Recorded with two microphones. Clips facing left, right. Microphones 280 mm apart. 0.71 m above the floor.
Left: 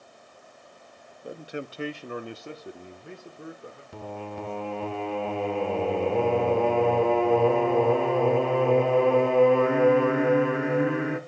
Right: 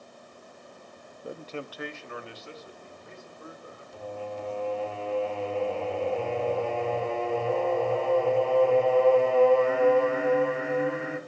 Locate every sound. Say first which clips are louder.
1.2 s a man speaking: left 2 dB; 5° right (ahead or behind), 0.7 m; by 3.8 s 75° left (ahead or behind), 1.9 m
3.9 s singing: right 1 dB; 70° left (ahead or behind), 1.0 m